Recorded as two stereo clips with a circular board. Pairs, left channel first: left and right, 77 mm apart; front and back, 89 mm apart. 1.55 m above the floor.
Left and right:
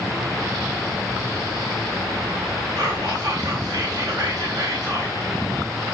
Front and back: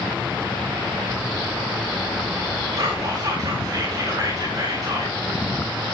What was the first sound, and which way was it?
Whispering, 130° right.